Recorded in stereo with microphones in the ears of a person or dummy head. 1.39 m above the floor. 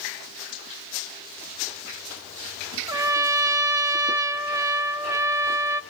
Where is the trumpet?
15° right (ahead or behind), 0.6 m.